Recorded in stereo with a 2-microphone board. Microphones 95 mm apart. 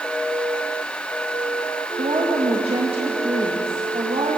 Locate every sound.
2.0 s a woman speaking: 90° right, 2 m